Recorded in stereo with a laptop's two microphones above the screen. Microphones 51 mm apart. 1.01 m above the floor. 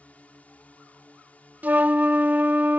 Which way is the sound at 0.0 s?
30° left (ahead or behind).